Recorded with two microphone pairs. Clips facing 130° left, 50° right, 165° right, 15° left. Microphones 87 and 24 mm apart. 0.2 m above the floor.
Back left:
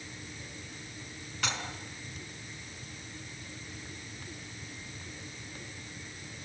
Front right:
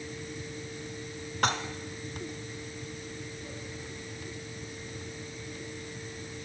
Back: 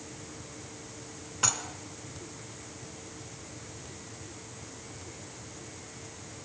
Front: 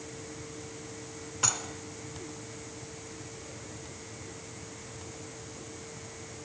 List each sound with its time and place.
1.4 s dishes clattering: 80° right, 1.6 m